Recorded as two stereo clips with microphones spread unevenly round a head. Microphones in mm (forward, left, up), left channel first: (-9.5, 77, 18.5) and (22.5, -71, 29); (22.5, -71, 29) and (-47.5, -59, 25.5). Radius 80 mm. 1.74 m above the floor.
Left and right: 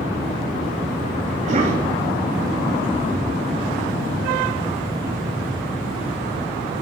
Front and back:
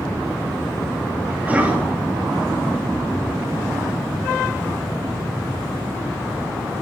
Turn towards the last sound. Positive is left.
turn(degrees=-125)